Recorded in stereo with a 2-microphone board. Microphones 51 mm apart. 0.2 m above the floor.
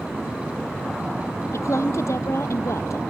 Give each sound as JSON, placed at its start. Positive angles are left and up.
{"t": 1.5, "sound": "a woman speaking", "side_deg": 65}